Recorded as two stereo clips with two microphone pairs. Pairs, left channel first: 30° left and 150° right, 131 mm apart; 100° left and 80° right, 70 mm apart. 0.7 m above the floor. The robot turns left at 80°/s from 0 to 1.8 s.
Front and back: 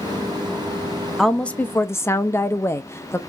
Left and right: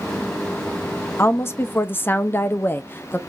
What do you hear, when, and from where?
1.2 s a woman speaking: 115° left, 0.6 m; by 3.2 s 65° left, 0.6 m